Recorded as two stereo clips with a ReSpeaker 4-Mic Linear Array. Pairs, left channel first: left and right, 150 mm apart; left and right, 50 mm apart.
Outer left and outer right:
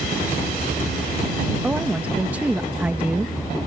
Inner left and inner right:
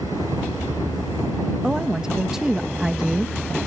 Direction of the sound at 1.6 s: 10° right (ahead or behind).